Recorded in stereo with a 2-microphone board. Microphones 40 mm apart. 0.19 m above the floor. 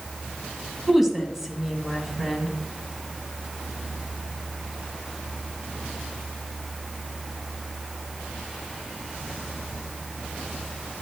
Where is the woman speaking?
5° right (ahead or behind), 1.4 m.